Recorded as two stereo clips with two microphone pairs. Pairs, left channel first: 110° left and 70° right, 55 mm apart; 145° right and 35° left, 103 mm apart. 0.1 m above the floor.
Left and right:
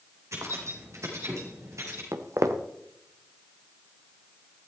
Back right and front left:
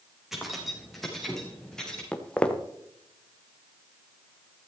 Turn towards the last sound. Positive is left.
turn(degrees=-65)